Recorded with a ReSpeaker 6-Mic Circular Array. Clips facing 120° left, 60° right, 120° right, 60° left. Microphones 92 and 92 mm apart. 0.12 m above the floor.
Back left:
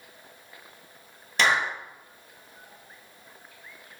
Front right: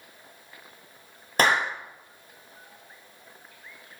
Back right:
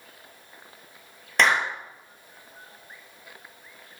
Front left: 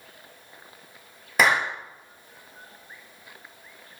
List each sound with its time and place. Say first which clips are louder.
1.4 s a clap: front right 1 dB, front left 1 dB; 20° right, 2.5 m